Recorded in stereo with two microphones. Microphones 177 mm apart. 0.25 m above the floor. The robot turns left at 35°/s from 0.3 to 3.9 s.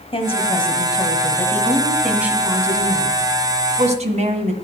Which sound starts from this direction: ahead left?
A woman speaking, at 0.1 s.